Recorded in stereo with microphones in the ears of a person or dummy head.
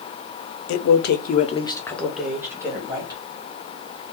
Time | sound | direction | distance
0.7 | a man speaking | 70° left (ahead or behind) | 0.7 m